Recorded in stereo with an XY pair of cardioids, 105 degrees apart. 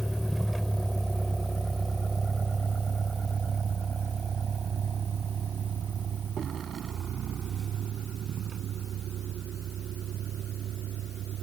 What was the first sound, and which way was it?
A vehicle, 5° right.